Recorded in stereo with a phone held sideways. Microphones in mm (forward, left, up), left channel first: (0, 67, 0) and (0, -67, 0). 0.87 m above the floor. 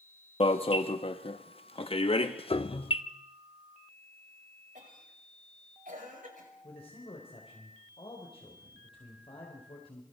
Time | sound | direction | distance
0.4 | an alarm | 40° left (ahead or behind) | 1.1 m
2.5 | a piano | 40° left (ahead or behind) | 0.6 m
4.8 | a cough | 75° right (ahead or behind) | 5.5 m
6.6 | a man speaking | 45° left (ahead or behind) | 3.5 m